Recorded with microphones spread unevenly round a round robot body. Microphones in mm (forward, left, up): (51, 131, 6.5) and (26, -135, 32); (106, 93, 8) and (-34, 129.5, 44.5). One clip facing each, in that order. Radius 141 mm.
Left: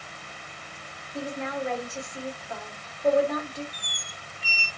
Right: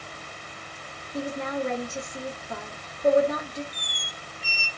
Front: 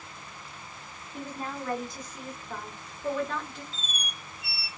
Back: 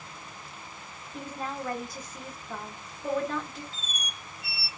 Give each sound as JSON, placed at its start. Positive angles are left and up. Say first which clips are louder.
{"t": 1.1, "sound": "a woman speaking", "louder": "right 2 dB, back 1 dB", "azimuth_deg": -80, "distance_m": 1.5}
{"t": 3.7, "sound": "a squeak", "louder": "right 3 dB, even", "azimuth_deg": -25, "distance_m": 0.5}